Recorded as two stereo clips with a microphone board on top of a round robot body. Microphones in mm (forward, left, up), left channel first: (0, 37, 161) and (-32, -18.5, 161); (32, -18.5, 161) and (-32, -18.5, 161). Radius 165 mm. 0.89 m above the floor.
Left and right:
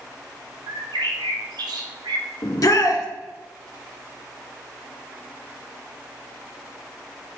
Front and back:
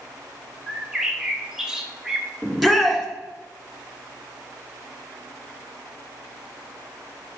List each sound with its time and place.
0.7 s a bird: 100° right, 0.7 m
2.4 s a shout: 95° left, 2 m